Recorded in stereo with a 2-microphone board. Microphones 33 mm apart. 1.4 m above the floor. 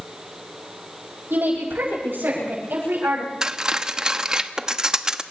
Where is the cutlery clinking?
20° right (ahead or behind), 1.0 m.